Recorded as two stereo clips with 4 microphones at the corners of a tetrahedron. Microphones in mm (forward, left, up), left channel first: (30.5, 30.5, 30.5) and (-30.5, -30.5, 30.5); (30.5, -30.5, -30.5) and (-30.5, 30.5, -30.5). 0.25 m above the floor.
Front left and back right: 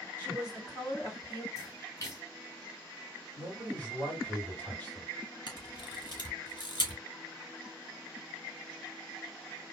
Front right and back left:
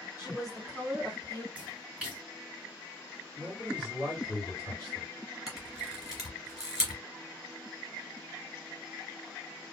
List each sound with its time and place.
0.2 s a woman speaking: 165° left, 1.8 m; by 1.4 s 110° left, 2.5 m
1.6 s a splash: 60° left, 2.0 m
3.4 s a man speaking: 110° left, 2.5 m
5.5 s a camera shutter: 55° left, 1.7 m